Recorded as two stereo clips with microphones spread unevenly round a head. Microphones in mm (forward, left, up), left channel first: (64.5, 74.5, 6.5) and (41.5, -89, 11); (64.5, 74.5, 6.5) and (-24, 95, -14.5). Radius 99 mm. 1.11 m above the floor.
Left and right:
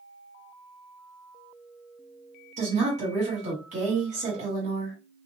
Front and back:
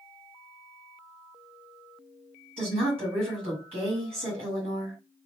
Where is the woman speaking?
155° right, 1.7 m.